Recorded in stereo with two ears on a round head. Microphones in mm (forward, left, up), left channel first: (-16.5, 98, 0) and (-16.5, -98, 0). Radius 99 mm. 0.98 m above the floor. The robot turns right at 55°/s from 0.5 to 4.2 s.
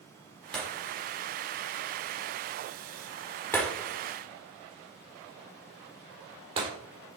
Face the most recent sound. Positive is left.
turn(degrees=-25)  # may be behind; listen again after turning